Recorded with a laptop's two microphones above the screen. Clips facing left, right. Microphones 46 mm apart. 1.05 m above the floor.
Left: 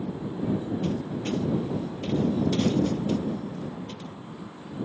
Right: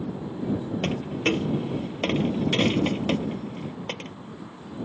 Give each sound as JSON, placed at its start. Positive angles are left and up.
{"t": 0.8, "sound": "a dropped coin", "side_deg": -70}